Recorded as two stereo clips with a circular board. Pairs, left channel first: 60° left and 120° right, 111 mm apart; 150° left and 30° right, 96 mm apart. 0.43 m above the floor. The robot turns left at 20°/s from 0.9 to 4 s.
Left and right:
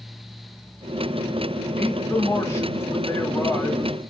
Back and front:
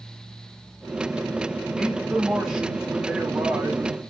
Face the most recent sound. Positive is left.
turn(degrees=15)